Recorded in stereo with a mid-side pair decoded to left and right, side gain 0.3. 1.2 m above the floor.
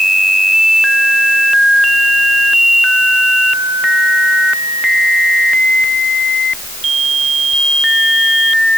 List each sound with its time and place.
Only background noise.